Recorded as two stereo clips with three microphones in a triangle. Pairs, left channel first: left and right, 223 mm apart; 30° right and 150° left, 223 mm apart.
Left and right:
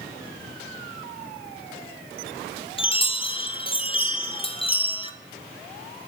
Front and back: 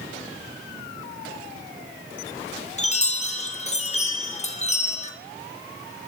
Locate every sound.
2.8 s a chime: 25° left, 0.6 m